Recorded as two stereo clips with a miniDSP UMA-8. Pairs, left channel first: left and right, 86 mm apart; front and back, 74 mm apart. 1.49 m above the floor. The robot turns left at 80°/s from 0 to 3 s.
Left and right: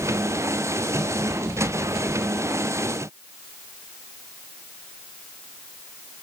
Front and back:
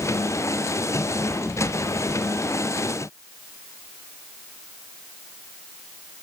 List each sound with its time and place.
Only background noise.